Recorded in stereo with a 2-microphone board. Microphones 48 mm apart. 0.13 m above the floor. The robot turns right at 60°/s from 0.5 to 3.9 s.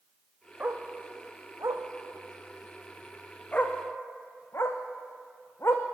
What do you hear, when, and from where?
0.6 s a dog barking: 35° right (ahead or behind), 3 m; by 5.8 s 50° left (ahead or behind), 3 m